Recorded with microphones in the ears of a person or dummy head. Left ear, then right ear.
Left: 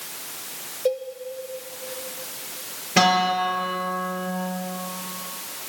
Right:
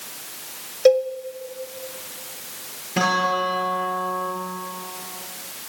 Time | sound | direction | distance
0.8 | a cowbell | 55° right (ahead or behind) | 0.5 m
3.0 | a guitar | 25° left (ahead or behind) | 6.5 m